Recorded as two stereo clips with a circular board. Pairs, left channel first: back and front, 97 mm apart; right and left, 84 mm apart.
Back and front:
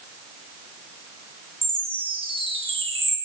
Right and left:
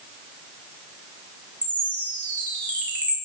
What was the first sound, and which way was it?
A chime, 15° right.